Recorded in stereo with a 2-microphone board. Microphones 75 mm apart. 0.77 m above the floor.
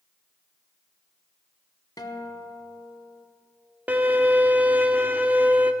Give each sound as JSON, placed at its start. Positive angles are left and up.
{"t": 2.0, "sound": "a guitar", "side_deg": 65, "distance_m": 1.2}
{"t": 3.9, "sound": "a violin", "side_deg": -20, "distance_m": 0.9}